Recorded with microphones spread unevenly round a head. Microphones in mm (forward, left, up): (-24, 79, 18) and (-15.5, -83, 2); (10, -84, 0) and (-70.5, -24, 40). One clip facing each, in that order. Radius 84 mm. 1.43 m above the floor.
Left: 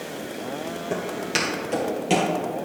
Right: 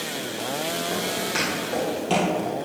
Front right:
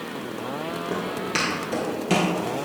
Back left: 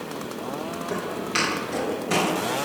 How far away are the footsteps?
About 2.5 m.